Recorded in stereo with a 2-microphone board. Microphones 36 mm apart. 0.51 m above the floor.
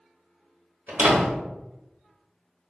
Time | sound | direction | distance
0.9 | a door slam | 65° right (ahead or behind) | 1.0 m